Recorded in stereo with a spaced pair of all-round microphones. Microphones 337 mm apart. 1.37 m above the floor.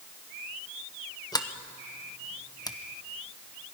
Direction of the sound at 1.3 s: 10° left (ahead or behind).